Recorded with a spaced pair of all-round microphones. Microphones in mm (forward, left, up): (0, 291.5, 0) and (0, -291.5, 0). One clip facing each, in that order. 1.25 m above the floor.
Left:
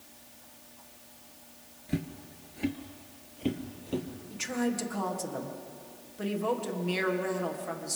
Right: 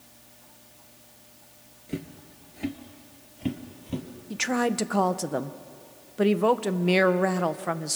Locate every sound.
1.9 s footsteps: 20° left (ahead or behind), 1.3 m; by 4.1 s 30° right (ahead or behind), 2 m
4.3 s a woman speaking: 80° right, 0.8 m